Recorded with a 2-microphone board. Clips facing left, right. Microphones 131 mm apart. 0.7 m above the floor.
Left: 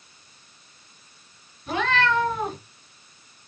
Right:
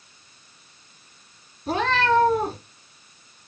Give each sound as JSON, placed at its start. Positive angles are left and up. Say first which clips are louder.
{"t": 1.7, "sound": "a cat meowing", "louder": "right 2 dB", "side_deg": -40, "distance_m": 4.0}